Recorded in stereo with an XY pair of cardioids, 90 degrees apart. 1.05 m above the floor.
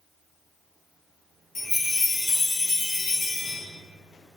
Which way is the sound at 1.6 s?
40° left.